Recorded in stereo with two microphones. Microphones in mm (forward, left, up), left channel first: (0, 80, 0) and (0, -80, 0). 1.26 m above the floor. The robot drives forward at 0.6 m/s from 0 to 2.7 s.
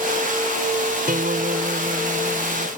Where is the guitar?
70° right (ahead or behind); by 2.7 s 85° right.